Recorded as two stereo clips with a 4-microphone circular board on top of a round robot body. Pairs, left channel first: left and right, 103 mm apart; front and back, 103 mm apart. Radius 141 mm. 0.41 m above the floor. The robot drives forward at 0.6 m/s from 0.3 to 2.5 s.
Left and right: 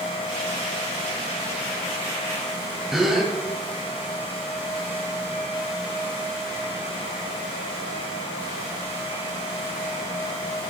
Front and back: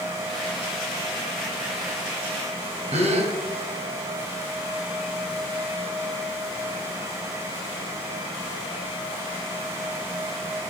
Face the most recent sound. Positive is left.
turn(degrees=-175)